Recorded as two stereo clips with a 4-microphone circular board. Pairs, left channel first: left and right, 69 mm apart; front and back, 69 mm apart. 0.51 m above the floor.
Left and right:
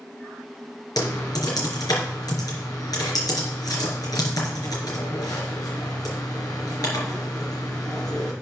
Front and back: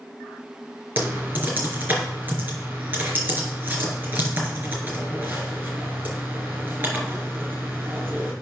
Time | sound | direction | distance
1.0 | typing on a keyboard | 115° left | 3.5 m